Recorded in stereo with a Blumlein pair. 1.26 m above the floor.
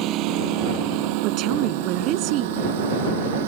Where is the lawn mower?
35° right; by 3.5 s 55° right.